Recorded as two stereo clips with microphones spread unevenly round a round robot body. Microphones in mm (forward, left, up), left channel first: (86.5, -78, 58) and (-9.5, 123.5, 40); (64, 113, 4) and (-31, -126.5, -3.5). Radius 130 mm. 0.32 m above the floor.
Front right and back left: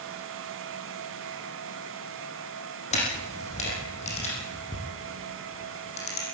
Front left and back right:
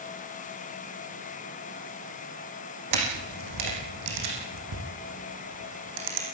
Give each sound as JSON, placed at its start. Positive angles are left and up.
{"t": 2.9, "sound": "a camera shutter", "azimuth_deg": -130, "distance_m": 8.0}